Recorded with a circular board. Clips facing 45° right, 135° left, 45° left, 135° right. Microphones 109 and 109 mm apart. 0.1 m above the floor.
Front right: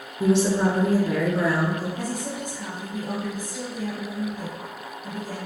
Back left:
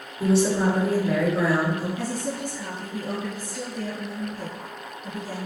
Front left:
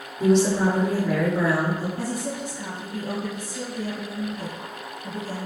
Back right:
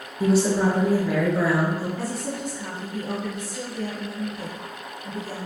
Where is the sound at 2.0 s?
15° left, 1.6 m.